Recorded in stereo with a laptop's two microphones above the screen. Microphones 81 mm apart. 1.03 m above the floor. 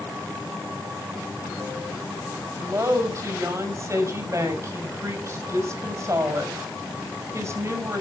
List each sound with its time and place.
2.6 s a woman speaking: 35° right (ahead or behind), 5.5 m